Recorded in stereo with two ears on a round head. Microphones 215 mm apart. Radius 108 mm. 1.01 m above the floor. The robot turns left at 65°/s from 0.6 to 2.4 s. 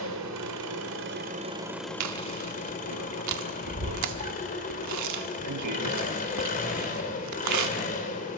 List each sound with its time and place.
0.0 s an engine running: 100° right, 3 m; by 8.4 s 145° left, 3 m
2.0 s chewing: 70° right (ahead or behind), 1.6 m; by 7.7 s 85° right, 1.6 m